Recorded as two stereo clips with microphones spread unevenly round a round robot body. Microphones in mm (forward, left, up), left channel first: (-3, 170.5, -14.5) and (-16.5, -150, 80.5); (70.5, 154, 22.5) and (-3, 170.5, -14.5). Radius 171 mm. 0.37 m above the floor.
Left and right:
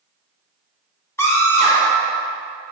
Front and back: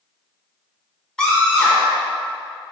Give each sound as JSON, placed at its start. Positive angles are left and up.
{"t": 1.2, "sound": "a scream", "azimuth_deg": 115, "distance_m": 1.1}